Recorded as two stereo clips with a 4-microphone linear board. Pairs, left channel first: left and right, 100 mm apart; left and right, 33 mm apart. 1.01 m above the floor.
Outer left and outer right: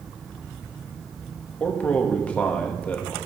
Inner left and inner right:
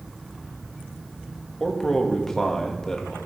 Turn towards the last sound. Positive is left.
turn(degrees=15)  # may be behind; listen again after turning